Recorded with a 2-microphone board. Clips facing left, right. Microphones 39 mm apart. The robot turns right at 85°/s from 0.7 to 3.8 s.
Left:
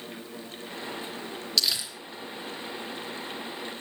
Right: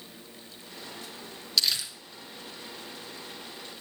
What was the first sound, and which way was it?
Crumpling, 5° right (ahead or behind).